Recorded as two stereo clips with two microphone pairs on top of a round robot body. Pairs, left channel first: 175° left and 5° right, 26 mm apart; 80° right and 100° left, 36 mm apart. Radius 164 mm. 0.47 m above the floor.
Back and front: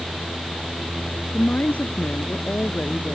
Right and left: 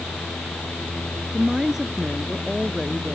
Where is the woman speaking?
Straight behind.